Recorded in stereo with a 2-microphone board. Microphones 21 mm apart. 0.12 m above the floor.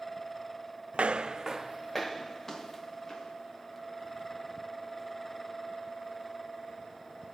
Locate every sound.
0.9 s footsteps: 75° right (ahead or behind), 0.5 m; by 3.4 s 25° left (ahead or behind), 2 m